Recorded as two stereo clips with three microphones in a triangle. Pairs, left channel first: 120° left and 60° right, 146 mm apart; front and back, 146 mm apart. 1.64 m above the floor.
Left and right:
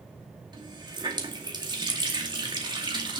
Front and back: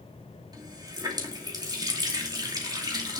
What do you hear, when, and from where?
0.5 s a running tap: 120° right, 2.5 m